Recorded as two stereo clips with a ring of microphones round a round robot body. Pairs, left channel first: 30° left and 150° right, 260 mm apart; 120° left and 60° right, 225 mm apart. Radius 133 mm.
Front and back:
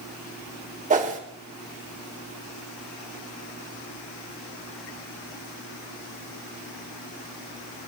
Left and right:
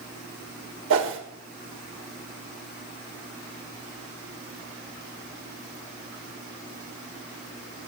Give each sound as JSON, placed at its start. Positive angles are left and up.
{"t": 0.9, "sound": "a whoosh", "azimuth_deg": -90, "distance_m": 1.7}